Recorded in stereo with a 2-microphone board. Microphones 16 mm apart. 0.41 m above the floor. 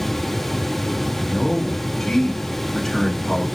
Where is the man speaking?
30° left (ahead or behind), 5.5 m.